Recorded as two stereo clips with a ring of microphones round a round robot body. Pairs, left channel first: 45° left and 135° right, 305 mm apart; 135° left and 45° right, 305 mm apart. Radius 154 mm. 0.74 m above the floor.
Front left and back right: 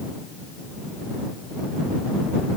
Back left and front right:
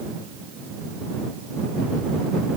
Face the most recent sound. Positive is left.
No sound to turn to.